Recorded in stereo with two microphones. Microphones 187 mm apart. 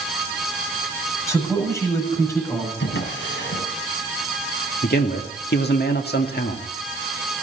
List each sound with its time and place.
1.3 s a man speaking: 15° left (ahead or behind), 7 m
2.8 s a drawer: 90° left, 4 m
4.8 s a man speaking: 60° left (ahead or behind), 1.8 m